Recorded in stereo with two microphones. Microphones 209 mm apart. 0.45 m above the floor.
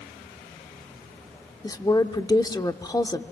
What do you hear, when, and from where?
1.6 s a woman speaking: 20° left (ahead or behind), 0.8 m